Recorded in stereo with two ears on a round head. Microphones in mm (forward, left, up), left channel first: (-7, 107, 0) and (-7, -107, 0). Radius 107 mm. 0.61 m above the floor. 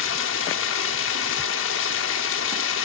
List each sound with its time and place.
0.0 s running water: 55° left (ahead or behind), 0.7 m